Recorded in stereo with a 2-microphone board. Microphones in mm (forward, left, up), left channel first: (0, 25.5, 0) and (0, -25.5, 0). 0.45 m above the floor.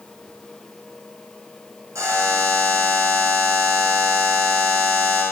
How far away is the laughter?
I don't hear laughter.